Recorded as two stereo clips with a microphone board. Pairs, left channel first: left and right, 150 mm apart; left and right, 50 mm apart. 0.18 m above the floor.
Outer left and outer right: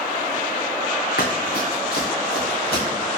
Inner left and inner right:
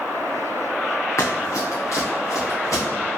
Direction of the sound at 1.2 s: 85° left.